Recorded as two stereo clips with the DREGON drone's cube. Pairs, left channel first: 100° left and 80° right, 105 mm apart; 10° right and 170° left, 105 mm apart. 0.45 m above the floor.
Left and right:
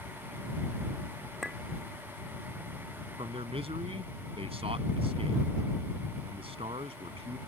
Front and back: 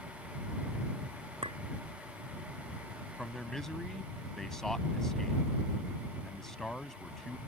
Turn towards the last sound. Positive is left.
turn(degrees=-95)